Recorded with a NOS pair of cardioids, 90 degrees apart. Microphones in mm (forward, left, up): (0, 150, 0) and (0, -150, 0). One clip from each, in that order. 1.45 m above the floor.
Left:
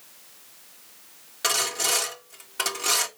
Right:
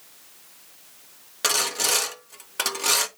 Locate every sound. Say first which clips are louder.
1.4 s sawing: right 1 dB; 20° right, 1.5 m